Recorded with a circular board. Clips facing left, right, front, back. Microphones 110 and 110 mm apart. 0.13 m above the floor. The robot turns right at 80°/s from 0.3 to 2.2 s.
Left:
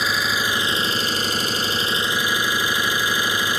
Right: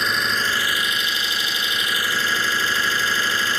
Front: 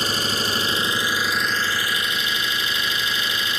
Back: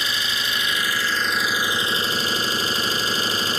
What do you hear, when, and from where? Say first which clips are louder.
0.0 s an engine running: even, front 3 dB; 5° left, 0.9 m; by 3.6 s 155° left, 0.9 m